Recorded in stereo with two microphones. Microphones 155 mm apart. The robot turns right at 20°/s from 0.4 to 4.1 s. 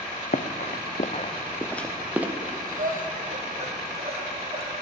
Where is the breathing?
70° right (ahead or behind), 1.6 m; by 4.7 s 40° right (ahead or behind), 1.6 m.